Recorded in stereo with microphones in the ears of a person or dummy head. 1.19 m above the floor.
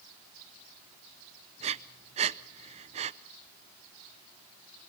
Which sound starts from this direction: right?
Breathing, at 1.6 s.